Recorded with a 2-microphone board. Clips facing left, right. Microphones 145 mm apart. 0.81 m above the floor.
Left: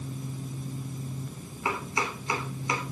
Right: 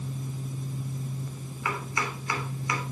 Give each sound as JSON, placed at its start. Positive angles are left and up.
{"t": 1.6, "sound": "chopping", "side_deg": 25, "distance_m": 3.0}